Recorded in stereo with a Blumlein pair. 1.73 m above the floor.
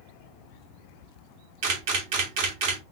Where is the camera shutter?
50° right, 1.8 m.